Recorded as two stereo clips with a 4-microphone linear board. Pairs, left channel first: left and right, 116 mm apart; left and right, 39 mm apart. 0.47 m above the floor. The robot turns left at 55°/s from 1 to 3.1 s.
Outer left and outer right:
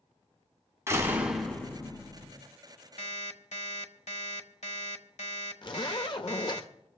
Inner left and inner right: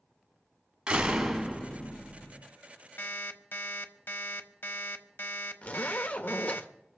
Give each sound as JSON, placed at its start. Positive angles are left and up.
{"t": 0.9, "sound": "a door slam", "azimuth_deg": -155, "distance_m": 2.5}
{"t": 3.0, "sound": "an alarm clock", "side_deg": 70, "distance_m": 1.3}
{"t": 5.6, "sound": "a zipper", "side_deg": 45, "distance_m": 1.2}